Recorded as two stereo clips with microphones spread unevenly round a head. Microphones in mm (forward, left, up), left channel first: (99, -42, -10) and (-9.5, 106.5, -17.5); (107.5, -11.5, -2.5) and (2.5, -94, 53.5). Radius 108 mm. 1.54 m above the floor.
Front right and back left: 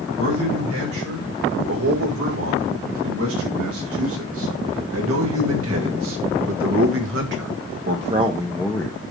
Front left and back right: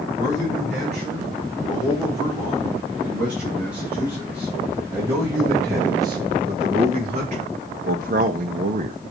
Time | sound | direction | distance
0.2 | a man speaking | 130° left | 5 m